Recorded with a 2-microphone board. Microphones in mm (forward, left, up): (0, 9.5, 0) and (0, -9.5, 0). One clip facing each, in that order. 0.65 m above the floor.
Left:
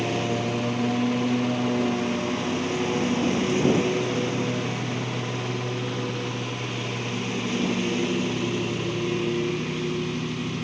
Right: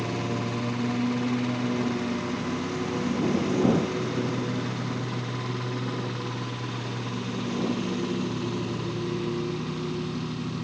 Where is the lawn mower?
40° left (ahead or behind).